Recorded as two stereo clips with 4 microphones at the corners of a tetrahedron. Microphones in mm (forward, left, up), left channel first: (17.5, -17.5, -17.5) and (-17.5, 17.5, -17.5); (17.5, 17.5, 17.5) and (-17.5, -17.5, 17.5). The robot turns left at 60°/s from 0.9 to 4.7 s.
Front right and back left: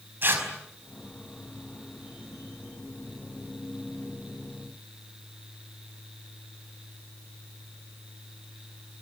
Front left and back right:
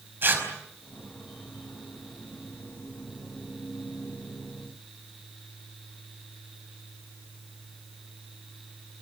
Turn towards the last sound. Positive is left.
turn(degrees=-45)